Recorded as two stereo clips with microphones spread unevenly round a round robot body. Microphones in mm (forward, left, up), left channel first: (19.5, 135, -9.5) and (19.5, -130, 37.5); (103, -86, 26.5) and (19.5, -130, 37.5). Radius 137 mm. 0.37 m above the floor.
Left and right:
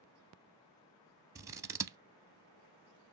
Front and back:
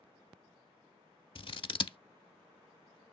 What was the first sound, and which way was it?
Scissors, 10° right.